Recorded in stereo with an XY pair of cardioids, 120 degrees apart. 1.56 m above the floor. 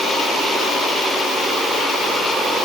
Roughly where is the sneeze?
No sneeze in this recording.